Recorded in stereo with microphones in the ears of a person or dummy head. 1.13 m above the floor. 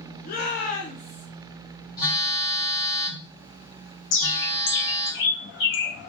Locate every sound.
0.2 s a shout: 40° left (ahead or behind), 0.6 m; by 1.2 s 35° left (ahead or behind), 0.8 m
2.0 s a phone buzzing: 20° left (ahead or behind), 1.3 m
4.1 s a bird: 50° left (ahead or behind), 0.7 m